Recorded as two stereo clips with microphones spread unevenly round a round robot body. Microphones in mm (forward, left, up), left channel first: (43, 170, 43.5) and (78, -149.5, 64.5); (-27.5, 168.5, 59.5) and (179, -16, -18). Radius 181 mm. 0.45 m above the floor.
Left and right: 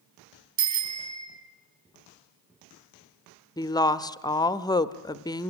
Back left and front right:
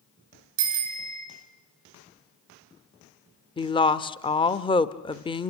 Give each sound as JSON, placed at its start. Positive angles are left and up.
{"t": 0.6, "sound": "a bicycle bell", "azimuth_deg": -70, "distance_m": 4.0}
{"t": 3.6, "sound": "a woman speaking", "azimuth_deg": 55, "distance_m": 0.7}